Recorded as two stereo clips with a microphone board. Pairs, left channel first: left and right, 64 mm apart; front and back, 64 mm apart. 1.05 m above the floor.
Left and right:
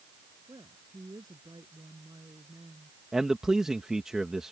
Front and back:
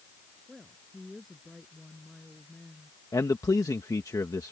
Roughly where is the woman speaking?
Right.